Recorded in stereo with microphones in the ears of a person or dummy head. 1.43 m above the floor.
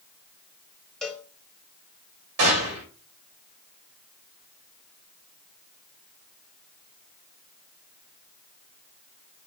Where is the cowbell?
Centre (ahead or behind), 0.6 m.